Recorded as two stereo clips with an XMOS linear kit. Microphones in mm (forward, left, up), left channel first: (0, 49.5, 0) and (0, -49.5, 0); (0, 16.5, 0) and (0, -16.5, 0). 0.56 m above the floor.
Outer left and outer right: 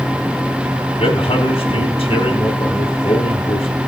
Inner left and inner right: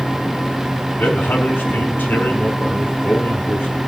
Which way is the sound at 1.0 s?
70° left (ahead or behind).